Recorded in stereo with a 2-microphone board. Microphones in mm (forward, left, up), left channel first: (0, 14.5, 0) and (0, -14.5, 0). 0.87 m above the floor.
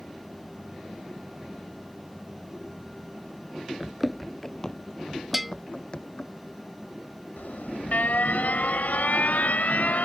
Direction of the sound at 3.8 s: 15° right (ahead or behind).